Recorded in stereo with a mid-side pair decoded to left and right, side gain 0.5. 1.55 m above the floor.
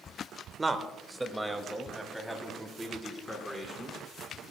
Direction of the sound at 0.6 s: 20° right.